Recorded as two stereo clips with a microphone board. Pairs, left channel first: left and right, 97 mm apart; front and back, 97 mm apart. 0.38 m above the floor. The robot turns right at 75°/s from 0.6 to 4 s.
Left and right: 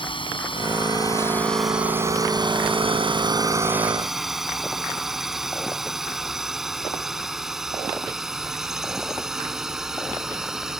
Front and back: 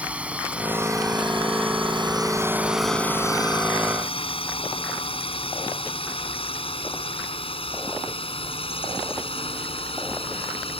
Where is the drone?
105° left; by 10.8 s 5° right.